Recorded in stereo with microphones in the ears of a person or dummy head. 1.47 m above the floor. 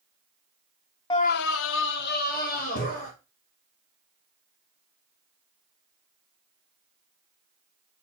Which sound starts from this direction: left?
A scream, at 1.1 s.